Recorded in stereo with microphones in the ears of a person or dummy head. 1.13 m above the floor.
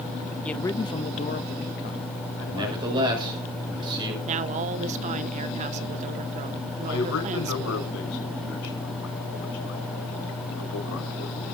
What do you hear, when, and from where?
0.5 s a man speaking: 5° left (ahead or behind), 0.8 m; by 3.4 s 75° left (ahead or behind), 2 m
2.5 s a man speaking: 20° right (ahead or behind), 6 m
4.2 s a woman speaking: 30° right (ahead or behind), 0.6 m
6.9 s a man speaking: 70° left (ahead or behind), 5.5 m